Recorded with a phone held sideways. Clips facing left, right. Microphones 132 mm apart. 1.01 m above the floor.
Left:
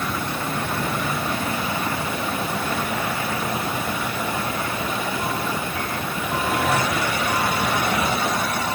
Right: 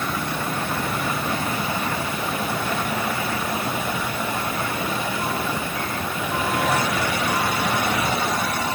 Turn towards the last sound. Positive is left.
No sound to turn to.